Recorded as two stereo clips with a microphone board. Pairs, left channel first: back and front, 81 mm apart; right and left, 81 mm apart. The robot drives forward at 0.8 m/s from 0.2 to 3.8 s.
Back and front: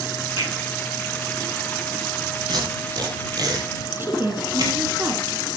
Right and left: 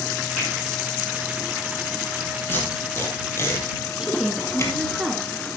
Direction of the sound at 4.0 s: 20° left.